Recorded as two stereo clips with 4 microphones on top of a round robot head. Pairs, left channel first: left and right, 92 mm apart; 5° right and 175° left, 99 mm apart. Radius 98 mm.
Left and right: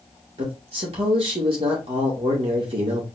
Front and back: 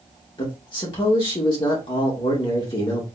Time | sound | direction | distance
0.4 | a man speaking | 55° right | 1.8 m